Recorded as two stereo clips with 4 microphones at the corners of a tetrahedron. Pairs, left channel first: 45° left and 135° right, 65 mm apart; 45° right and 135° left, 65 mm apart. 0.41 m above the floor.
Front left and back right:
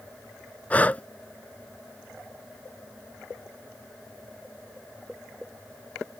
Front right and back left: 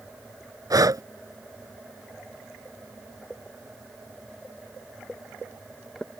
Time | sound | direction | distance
0.7 | breathing | 115° left | ?